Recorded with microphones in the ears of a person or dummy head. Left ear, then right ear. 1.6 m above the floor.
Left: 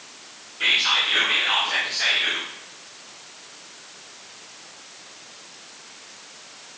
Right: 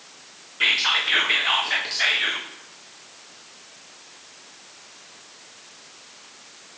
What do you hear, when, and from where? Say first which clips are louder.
0.6 s whispering: even; 35° right (ahead or behind), 0.7 m